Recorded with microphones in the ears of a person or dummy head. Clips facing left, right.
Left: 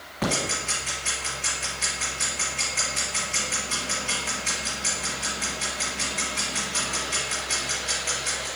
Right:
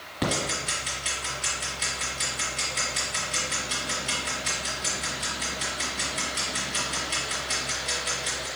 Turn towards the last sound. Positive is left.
turn(degrees=-15)  # may be behind; listen again after turning